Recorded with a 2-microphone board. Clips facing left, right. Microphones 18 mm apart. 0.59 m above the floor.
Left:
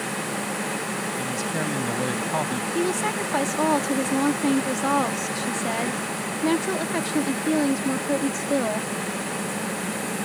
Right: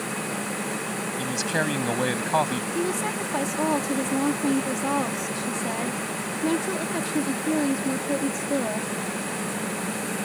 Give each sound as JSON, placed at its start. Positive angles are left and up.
{"t": 1.2, "sound": "a man speaking", "side_deg": -35}
{"t": 2.8, "sound": "a woman speaking", "side_deg": 20}